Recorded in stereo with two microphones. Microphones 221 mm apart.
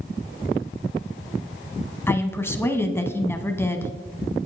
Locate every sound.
2.1 s a woman speaking: 10° left (ahead or behind), 1.1 m